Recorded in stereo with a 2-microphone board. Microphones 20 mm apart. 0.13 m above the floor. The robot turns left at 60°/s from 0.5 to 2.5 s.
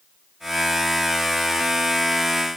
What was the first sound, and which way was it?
Only background noise.